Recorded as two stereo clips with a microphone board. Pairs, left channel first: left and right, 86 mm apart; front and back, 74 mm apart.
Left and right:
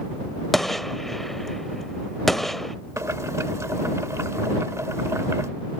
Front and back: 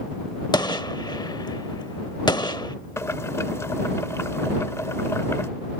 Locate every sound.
0.5 s a gunshot: straight ahead
3.0 s boiling: 45° right